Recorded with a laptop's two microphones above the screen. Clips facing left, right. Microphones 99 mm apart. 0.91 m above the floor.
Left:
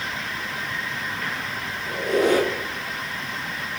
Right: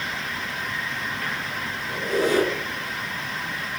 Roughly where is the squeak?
Left.